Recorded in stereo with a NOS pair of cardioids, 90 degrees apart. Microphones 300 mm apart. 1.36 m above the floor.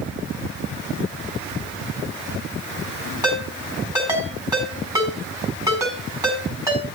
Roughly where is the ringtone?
Ahead.